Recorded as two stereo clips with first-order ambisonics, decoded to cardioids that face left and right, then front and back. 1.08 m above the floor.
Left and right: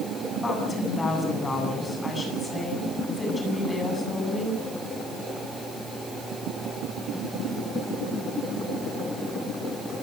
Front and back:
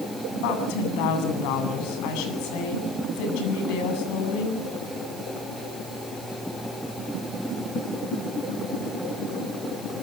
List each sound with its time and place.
0.4 s a woman speaking: 10° left, 8 m